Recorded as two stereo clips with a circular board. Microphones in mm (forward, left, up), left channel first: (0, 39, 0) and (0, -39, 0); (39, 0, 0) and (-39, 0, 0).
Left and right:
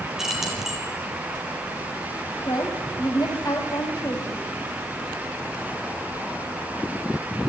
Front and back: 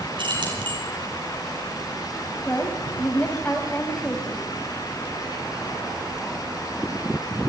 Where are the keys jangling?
175° right, 7 m.